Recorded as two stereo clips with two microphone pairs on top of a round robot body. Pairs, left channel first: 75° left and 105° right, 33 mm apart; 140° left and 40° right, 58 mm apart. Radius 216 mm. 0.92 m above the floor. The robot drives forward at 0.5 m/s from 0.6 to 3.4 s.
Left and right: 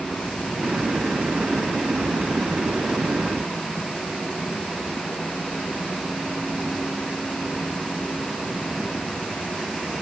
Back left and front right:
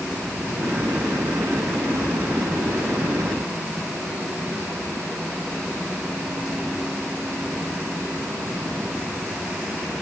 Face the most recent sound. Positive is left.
No sound to turn to.